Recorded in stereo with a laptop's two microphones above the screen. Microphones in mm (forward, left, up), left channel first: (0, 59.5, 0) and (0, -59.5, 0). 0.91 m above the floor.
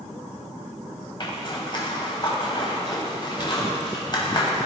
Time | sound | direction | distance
1.2 | a zipper | 40° left (ahead or behind) | 1.2 m